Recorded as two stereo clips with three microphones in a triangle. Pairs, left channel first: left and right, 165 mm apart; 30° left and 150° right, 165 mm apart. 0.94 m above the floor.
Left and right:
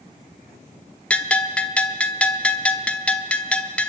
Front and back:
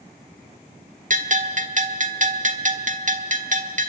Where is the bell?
175° left, 1.3 m.